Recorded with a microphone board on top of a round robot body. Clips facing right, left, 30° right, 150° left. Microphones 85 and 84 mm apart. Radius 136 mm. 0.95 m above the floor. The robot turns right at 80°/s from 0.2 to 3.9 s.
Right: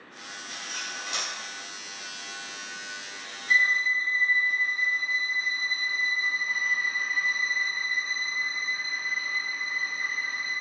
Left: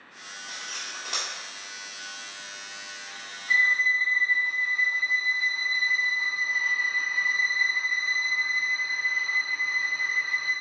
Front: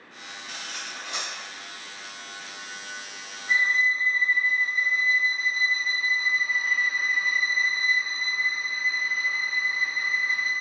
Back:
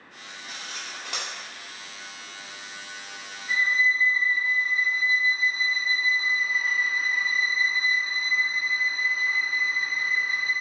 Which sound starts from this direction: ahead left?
A violin, at 3.5 s.